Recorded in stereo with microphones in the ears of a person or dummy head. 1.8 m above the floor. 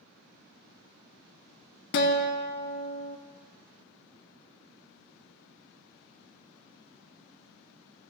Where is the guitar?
60° left (ahead or behind), 0.8 m.